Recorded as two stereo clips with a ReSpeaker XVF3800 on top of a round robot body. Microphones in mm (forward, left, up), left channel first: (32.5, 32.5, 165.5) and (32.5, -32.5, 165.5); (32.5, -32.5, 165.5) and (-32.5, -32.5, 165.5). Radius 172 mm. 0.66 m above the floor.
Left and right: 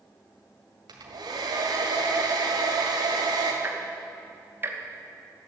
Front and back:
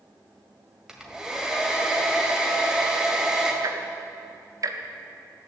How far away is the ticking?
About 1.2 m.